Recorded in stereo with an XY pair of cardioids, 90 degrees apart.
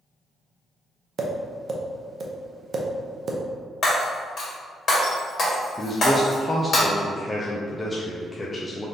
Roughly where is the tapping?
Ahead right.